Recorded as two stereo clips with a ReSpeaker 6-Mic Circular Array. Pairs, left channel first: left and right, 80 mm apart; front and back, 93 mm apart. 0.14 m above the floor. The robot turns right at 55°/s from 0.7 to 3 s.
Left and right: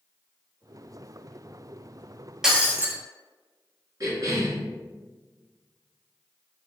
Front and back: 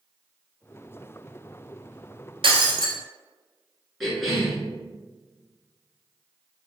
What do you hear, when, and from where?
2.4 s breaking glass: 175° right, 0.6 m; by 3.0 s 145° right, 0.6 m
4.0 s a cough: 90° right, 1.4 m